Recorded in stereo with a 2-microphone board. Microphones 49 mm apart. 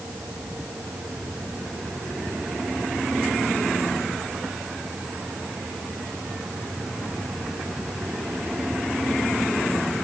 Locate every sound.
Only background noise.